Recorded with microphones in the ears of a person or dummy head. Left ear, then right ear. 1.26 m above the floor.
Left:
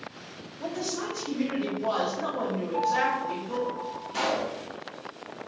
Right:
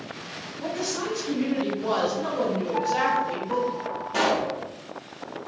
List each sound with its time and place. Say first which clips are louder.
0.6 s a woman speaking: right 3 dB; 30° left (ahead or behind), 0.8 m
2.7 s a piano: right 1 dB; 5° right (ahead or behind), 1.6 m
4.1 s a pop: right 4 dB; 15° right (ahead or behind), 0.8 m